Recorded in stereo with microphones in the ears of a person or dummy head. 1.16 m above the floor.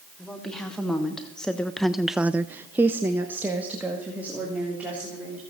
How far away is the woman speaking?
About 2.5 m.